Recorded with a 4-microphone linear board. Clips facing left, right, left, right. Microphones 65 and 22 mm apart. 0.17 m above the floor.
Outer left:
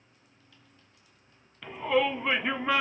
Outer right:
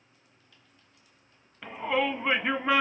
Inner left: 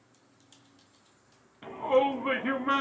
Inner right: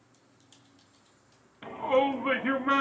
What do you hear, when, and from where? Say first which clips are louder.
1.6 s a shout: outer left 2 dB, even; 15° right (ahead or behind), 1.0 m; by 2.8 s centre (ahead or behind), 1.0 m